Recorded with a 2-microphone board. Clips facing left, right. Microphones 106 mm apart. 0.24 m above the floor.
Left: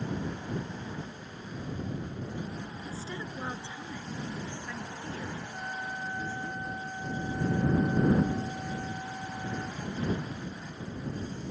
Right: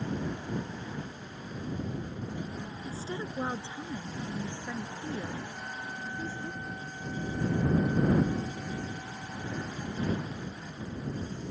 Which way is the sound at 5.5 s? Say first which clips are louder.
Left 3 dB; 30° left (ahead or behind).